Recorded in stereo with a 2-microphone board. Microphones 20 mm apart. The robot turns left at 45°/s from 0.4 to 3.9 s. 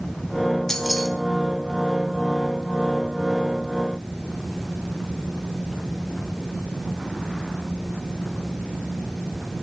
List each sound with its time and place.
0.7 s keys jangling: 20° left (ahead or behind), 1.2 m; by 1.1 s 5° left (ahead or behind), 1.2 m